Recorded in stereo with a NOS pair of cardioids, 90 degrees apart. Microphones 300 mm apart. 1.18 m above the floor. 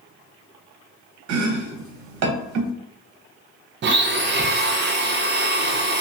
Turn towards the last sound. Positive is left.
turn(degrees=-35)